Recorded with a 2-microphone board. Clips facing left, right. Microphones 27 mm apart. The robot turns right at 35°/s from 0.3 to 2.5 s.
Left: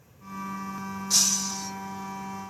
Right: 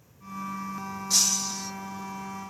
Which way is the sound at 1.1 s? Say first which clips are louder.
Even; centre (ahead or behind).